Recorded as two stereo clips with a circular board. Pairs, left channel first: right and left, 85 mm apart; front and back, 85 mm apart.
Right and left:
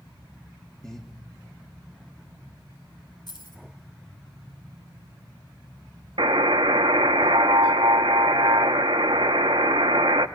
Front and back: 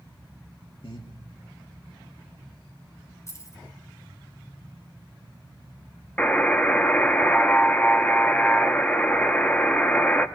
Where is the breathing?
5° right, 2.5 m.